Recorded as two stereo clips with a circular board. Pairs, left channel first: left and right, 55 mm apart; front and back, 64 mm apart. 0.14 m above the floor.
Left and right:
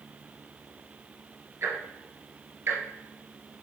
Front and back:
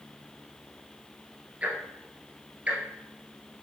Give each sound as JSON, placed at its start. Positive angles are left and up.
{"t": 1.6, "sound": "ticking", "azimuth_deg": -115, "distance_m": 1.0}